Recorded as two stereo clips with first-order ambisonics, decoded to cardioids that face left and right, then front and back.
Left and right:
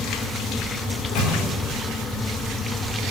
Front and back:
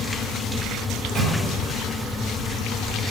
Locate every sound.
0.9 s a microwave: 100° left, 2.5 m